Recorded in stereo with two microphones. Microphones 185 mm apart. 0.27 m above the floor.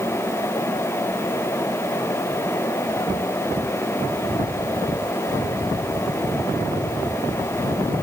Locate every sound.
Only background noise.